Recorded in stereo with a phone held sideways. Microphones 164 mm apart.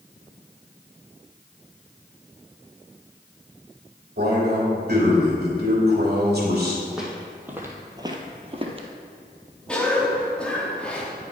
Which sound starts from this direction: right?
A man speaking, at 4.2 s.